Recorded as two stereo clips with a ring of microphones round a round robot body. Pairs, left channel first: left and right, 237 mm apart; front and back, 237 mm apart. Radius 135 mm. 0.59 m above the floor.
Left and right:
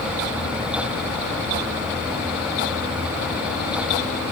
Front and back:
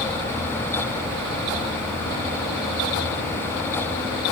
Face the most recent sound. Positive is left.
No sound to turn to.